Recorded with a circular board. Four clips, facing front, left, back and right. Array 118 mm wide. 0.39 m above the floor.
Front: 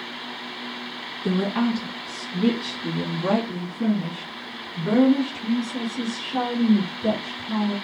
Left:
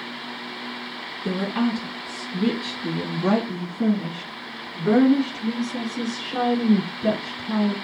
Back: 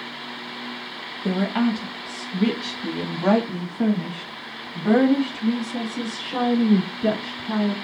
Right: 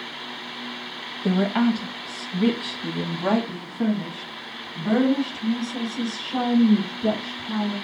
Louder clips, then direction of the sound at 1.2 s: Right 3 dB, back 1 dB; 115° right.